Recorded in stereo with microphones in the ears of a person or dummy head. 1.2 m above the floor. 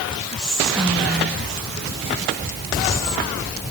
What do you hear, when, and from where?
0.4 s whispering: centre (ahead or behind), 1.9 m